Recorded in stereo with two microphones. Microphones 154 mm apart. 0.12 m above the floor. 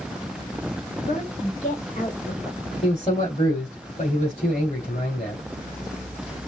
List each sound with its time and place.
1.0 s a woman speaking: 60° left (ahead or behind), 4 m; by 2.6 s 40° left (ahead or behind), 4 m
2.8 s a man speaking: 40° left (ahead or behind), 3 m